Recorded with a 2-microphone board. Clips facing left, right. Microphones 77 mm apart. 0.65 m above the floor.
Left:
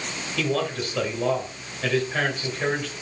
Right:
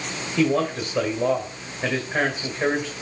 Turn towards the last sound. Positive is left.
turn(degrees=-20)  # may be behind; listen again after turning